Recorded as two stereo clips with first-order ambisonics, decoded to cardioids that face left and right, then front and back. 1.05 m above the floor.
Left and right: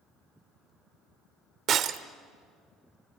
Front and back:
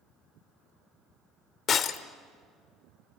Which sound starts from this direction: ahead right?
Breaking glass, at 1.7 s.